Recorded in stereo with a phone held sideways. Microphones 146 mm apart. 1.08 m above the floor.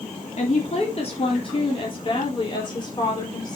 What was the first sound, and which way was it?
A woman speaking, 50° left (ahead or behind).